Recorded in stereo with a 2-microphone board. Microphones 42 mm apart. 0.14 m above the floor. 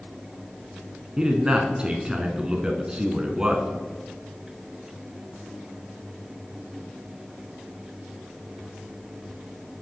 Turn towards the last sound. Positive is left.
turn(degrees=-20)  # may be behind; listen again after turning